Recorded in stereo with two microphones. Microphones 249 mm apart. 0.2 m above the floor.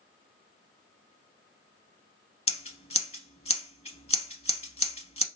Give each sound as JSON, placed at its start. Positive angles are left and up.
{"t": 2.5, "sound": "scissors", "side_deg": 25, "distance_m": 0.6}